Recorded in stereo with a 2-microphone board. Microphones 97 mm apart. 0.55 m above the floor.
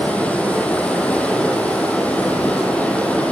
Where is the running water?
15° left (ahead or behind), 4 m.